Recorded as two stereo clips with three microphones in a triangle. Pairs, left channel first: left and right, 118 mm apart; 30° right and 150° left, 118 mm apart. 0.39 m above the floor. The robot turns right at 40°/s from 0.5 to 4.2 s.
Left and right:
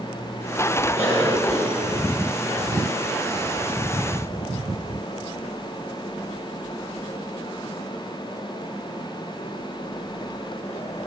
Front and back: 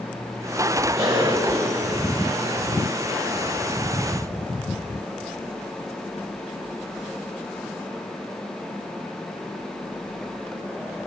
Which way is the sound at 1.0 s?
165° right.